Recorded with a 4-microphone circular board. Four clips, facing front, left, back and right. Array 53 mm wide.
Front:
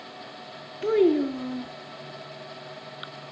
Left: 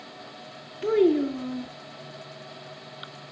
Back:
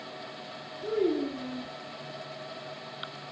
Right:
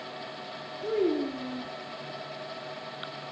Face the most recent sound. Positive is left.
turn(degrees=30)